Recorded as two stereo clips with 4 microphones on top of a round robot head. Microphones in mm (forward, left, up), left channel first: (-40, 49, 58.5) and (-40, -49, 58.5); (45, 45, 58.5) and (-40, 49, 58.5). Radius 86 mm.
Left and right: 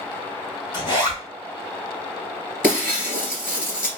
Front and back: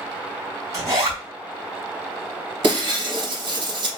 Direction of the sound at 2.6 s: 155° left.